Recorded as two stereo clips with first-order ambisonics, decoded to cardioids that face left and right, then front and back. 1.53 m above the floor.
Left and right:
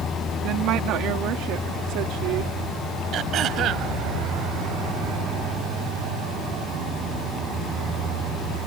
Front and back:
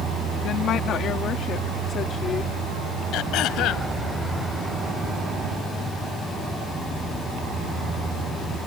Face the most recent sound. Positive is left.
turn(degrees=-40)